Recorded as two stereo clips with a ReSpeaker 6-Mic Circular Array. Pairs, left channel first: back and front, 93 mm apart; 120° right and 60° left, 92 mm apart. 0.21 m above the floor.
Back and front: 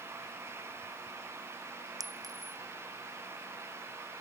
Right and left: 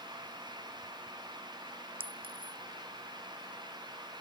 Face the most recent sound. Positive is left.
turn(degrees=45)